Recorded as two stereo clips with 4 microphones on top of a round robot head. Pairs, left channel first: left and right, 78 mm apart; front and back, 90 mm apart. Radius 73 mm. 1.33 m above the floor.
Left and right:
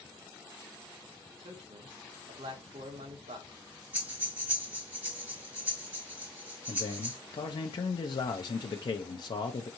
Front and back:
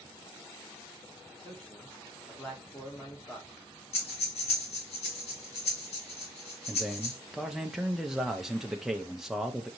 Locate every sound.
1.3 s a man speaking: 80° right, 1.1 m
3.9 s breathing: 10° right, 1.8 m
6.7 s a man speaking: 90° left, 0.5 m